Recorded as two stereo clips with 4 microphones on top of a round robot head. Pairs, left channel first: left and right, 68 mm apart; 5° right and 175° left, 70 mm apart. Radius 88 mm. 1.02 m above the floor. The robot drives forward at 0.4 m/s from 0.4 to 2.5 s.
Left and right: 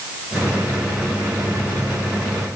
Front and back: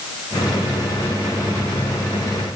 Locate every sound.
Only background noise.